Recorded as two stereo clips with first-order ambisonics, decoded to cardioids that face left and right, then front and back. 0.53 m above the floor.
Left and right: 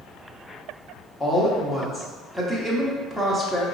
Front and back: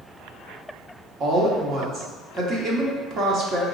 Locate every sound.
1.2 s a woman speaking: 175° left, 0.9 m